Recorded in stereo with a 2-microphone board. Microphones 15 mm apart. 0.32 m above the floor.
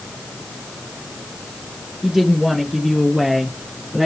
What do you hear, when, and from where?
2.0 s a woman speaking: 10° right (ahead or behind), 7 m